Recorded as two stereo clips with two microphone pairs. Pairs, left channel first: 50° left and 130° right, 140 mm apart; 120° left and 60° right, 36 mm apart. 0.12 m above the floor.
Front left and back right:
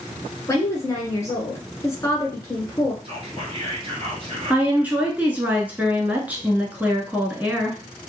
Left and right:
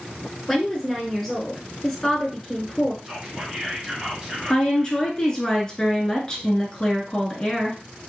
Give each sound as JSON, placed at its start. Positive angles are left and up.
{"t": 0.5, "sound": "a woman speaking", "azimuth_deg": 50, "distance_m": 1.6}
{"t": 3.0, "sound": "whispering", "azimuth_deg": -110, "distance_m": 2.0}
{"t": 4.5, "sound": "a woman speaking", "azimuth_deg": 160, "distance_m": 1.2}